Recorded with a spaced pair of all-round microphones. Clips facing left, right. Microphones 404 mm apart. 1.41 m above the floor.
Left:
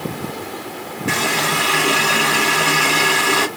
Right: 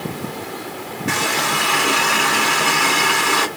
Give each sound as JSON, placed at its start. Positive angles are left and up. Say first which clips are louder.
{"t": 1.1, "sound": "a running tap", "louder": "left 2 dB", "side_deg": 50, "distance_m": 1.4}